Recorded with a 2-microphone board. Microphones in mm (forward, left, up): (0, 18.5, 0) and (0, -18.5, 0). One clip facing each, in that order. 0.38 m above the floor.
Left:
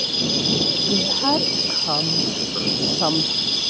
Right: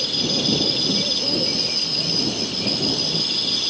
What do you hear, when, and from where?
0.9 s a woman speaking: 80° left